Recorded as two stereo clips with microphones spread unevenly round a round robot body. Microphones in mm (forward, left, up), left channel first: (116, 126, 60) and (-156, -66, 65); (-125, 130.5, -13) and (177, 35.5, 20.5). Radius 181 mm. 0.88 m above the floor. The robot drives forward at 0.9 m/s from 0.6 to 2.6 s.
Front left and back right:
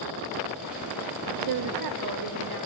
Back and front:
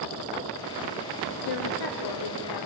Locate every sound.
1.4 s a woman speaking: 165° right, 1.1 m; by 2.7 s 175° right, 2 m